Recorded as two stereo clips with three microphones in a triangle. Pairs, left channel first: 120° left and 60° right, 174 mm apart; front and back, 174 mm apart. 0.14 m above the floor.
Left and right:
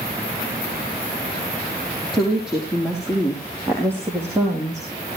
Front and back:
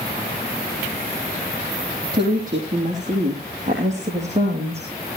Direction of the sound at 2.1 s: 150° right.